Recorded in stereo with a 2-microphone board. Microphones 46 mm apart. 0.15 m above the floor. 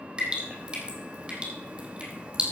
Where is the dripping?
25° right (ahead or behind), 2.5 m.